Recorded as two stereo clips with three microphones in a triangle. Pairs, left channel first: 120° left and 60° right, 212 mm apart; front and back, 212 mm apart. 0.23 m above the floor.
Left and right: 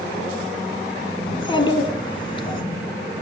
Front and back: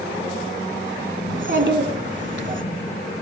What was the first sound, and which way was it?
A child speaking, straight behind.